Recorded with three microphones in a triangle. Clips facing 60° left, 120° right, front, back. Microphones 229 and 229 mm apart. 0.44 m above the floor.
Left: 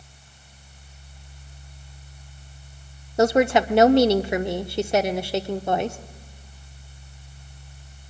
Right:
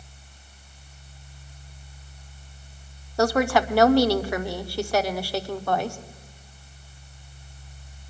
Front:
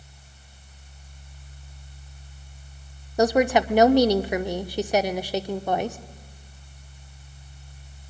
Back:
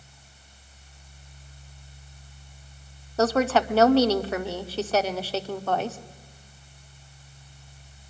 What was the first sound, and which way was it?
A woman speaking, 50° left.